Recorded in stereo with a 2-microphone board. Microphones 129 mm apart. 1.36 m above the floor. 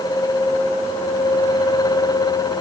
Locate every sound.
Only background noise.